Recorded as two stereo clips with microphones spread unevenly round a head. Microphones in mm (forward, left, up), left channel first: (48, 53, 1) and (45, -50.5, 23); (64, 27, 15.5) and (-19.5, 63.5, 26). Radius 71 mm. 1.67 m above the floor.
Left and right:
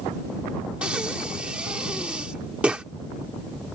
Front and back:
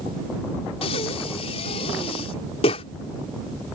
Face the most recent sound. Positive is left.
turn(degrees=-20)